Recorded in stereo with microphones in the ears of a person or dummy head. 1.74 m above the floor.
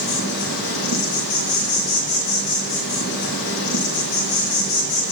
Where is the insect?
70° left (ahead or behind), 2.0 m.